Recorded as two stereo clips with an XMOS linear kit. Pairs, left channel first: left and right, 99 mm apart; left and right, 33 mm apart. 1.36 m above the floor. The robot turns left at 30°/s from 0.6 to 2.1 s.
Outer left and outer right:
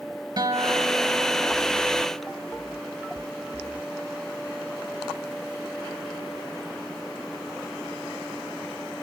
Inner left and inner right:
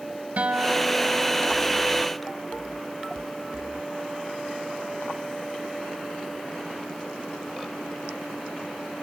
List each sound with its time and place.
0.4 s a guitar: 50° right, 1.0 m; by 1.6 s 80° right, 1.0 m